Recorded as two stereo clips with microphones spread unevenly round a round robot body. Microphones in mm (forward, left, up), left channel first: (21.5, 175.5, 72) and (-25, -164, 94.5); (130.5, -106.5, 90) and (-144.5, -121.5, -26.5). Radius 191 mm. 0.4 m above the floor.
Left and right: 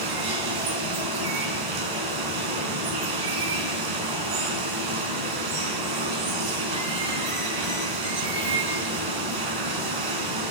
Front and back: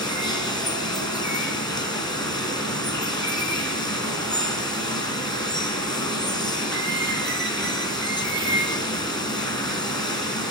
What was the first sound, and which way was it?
Running water, 75° right.